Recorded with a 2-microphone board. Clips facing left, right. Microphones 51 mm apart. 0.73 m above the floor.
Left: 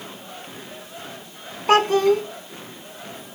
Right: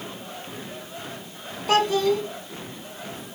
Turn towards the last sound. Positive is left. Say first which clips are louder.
# left 4 dB
turn(degrees=35)  # may be behind; listen again after turning